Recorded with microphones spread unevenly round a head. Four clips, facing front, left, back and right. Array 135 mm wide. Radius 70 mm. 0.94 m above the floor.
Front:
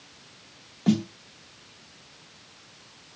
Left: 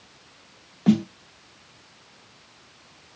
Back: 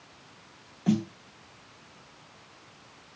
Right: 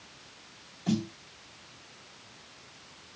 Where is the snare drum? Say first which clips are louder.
Left 10 dB, front 3 dB; 70° left, 0.7 m.